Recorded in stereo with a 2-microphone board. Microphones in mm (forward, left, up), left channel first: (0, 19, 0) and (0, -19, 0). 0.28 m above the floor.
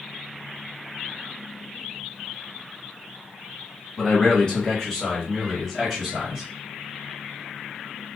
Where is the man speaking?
25° left (ahead or behind), 1.2 m; by 6.4 s centre (ahead or behind), 1.6 m.